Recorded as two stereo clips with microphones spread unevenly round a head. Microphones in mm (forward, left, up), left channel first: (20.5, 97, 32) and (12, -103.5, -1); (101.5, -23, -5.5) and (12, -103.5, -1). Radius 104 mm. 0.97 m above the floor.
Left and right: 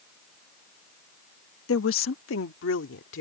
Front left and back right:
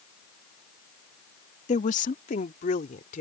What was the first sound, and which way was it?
A woman speaking, 70° left.